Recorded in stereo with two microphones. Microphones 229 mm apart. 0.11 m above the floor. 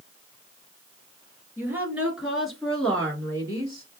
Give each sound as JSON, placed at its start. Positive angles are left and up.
{"t": 1.6, "sound": "a woman speaking", "side_deg": -10, "distance_m": 1.5}